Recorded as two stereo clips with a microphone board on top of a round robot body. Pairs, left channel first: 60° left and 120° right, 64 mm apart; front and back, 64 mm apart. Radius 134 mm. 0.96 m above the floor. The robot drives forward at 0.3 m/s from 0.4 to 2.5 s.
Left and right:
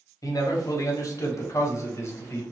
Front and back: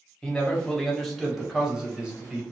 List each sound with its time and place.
0.2 s a man speaking: 75° left, 1.2 m; by 2.4 s 110° left, 1.2 m